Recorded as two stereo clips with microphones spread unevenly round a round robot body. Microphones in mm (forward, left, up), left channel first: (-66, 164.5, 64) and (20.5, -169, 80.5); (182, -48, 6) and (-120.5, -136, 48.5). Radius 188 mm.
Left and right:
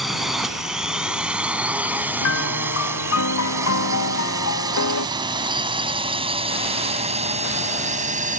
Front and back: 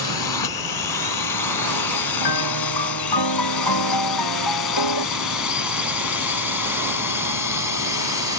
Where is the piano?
55° left.